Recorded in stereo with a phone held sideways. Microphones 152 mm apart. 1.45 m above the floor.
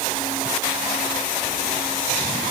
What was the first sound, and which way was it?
Only background noise.